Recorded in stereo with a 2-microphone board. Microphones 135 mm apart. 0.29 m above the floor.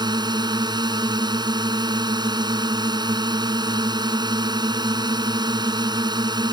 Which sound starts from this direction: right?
A drone, at 0.0 s.